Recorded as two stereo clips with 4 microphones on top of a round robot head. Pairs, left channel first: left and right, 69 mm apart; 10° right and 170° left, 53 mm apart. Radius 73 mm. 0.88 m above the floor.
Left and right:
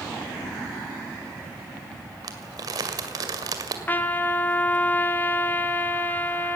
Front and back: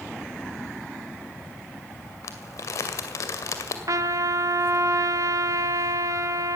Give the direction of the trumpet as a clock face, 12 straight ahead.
7 o'clock.